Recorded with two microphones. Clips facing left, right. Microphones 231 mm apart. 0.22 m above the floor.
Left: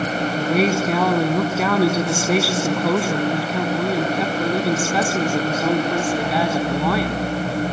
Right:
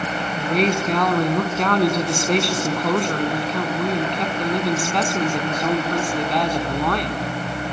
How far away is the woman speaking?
About 1.7 m.